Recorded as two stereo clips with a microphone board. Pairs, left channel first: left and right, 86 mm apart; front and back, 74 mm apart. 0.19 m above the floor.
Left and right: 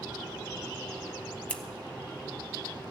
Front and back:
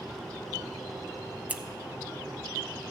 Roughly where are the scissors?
Behind left.